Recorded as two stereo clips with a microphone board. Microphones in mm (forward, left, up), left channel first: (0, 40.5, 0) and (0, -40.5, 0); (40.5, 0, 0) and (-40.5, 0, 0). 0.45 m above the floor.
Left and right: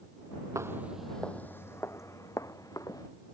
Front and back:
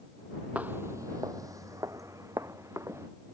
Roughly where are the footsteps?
Behind right.